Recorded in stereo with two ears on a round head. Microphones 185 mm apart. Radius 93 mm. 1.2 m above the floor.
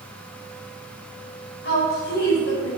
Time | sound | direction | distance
1.6 | a woman speaking | 55° left (ahead or behind) | 4.5 m